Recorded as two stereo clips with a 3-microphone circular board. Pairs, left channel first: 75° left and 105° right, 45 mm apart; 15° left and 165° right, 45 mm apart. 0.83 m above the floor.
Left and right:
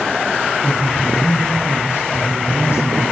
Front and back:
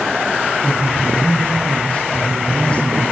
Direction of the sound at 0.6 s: 85° left.